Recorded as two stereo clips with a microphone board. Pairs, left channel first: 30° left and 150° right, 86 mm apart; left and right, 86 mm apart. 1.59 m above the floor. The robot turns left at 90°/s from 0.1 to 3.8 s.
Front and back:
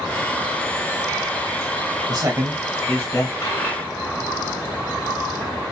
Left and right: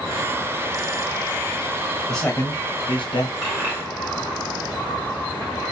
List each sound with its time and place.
2.1 s a man speaking: 175° left, 0.8 m; by 3.3 s 65° left, 0.8 m
3.4 s a dropped coin: 5° left, 1.7 m; by 5.5 s 30° right, 1.7 m